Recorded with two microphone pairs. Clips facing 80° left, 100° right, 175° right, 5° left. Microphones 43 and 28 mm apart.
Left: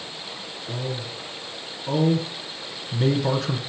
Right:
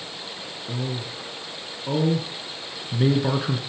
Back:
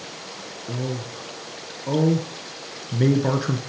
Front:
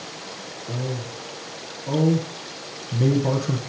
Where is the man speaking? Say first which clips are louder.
Even, back 1 dB; 170° right, 1.9 m.